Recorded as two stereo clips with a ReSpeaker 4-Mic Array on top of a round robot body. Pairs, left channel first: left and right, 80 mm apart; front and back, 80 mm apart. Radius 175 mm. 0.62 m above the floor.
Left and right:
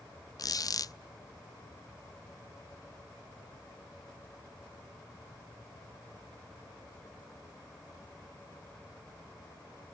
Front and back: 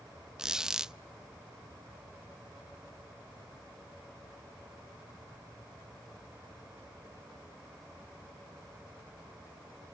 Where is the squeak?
100° left, 0.6 m.